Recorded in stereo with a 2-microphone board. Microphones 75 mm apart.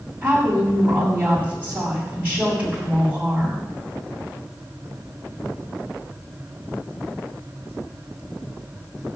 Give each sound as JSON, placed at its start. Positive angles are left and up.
{"t": 0.2, "sound": "a woman speaking", "side_deg": -20, "distance_m": 7.5}